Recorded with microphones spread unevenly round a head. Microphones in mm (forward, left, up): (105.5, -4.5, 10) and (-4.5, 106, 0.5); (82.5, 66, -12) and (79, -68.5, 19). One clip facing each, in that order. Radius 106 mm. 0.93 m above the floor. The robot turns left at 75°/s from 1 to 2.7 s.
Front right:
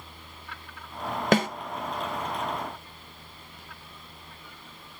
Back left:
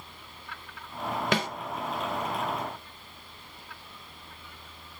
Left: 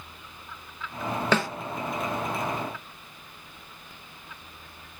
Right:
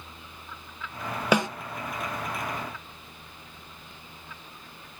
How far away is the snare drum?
About 0.5 m.